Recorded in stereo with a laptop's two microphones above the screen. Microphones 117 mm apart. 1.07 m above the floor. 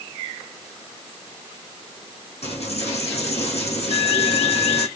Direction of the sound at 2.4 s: 65° left (ahead or behind).